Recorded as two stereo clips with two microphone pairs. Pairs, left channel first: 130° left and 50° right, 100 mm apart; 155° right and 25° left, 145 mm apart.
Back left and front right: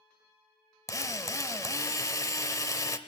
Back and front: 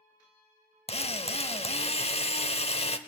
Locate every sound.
0.9 s a drill: straight behind, 0.7 m